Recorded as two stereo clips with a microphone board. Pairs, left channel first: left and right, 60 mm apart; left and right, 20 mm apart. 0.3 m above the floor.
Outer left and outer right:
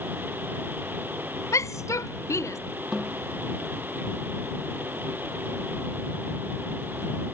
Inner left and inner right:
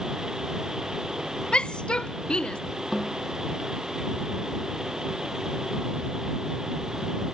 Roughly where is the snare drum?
Centre.